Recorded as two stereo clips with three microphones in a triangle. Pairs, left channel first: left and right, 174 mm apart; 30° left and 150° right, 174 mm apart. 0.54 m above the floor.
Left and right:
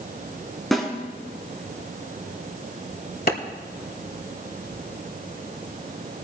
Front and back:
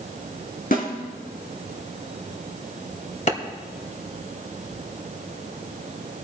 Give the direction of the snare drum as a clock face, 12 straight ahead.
12 o'clock.